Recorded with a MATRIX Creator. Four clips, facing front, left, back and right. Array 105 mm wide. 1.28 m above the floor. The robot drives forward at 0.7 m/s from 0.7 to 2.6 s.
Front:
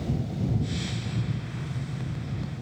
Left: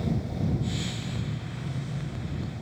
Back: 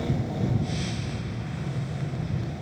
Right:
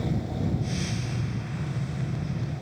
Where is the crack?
No crack in this recording.